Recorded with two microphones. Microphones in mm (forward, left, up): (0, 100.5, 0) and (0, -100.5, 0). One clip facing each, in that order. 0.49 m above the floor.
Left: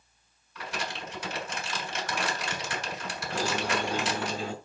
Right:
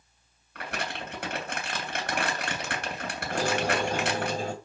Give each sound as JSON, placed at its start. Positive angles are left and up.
{"t": 0.6, "sound": "crumpling", "side_deg": -70, "distance_m": 3.0}
{"t": 3.3, "sound": "a squeak", "side_deg": -50, "distance_m": 2.0}